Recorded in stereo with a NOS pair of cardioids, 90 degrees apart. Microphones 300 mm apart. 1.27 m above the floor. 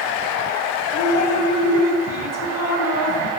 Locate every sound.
0.9 s dripping: 60° left, 4 m